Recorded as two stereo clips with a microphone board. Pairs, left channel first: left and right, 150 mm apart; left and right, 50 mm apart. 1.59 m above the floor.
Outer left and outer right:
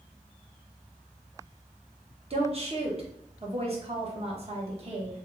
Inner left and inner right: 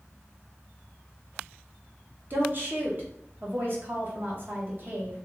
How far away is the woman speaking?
About 1.2 m.